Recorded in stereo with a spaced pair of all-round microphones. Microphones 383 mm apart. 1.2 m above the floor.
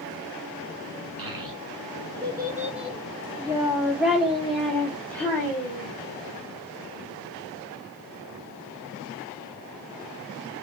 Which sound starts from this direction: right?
A child speaking, at 1.2 s.